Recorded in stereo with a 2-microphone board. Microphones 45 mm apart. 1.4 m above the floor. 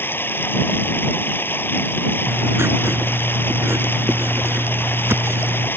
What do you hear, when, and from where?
0.0 s running water: 55° left (ahead or behind)
2.3 s writing: 75° right (ahead or behind)